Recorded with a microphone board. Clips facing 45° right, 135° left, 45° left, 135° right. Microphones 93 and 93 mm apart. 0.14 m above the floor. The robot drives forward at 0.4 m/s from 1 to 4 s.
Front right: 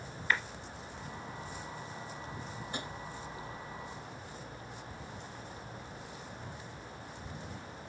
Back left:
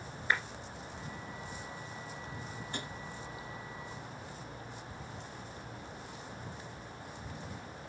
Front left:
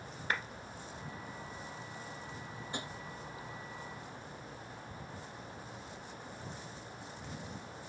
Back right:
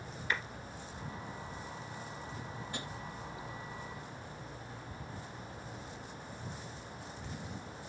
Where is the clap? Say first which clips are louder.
Even, even; 75° left, 2 m.